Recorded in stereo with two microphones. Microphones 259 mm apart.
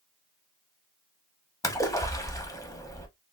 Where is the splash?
10° left (ahead or behind), 0.6 m.